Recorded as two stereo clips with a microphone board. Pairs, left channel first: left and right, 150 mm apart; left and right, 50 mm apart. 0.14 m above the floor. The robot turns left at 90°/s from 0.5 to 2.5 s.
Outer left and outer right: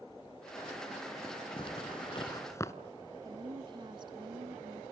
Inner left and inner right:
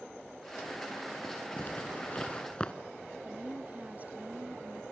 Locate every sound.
1.6 s a zipper: 35° left (ahead or behind), 1.4 m; by 2.7 s 20° left (ahead or behind), 1.4 m
3.2 s a woman speaking: 30° right (ahead or behind), 1.3 m